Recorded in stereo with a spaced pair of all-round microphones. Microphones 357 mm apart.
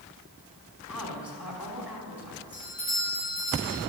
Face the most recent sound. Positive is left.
turn(degrees=35)  # may be behind; listen again after turning